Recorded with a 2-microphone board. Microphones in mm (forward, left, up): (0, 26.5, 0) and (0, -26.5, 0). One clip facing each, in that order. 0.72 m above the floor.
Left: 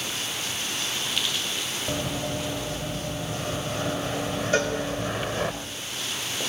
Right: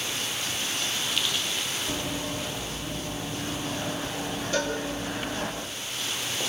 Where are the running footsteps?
60° left (ahead or behind), 6.5 m.